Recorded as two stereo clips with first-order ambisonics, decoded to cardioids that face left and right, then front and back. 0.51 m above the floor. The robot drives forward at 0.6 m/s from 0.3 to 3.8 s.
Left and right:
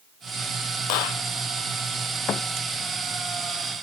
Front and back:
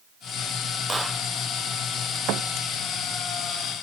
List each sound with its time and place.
0.9 s a clap: 100° left
2.3 s a thud: 145° left